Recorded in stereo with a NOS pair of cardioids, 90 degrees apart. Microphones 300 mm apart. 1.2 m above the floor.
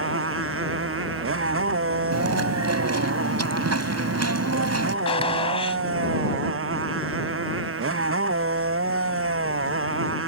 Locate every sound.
0.0 s a motorcycle: 45° right
2.1 s chewing: 55° right
5.0 s a gunshot: 20° left